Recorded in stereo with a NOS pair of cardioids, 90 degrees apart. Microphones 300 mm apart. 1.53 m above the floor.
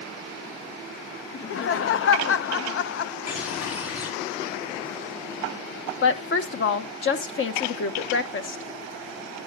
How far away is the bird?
About 3 m.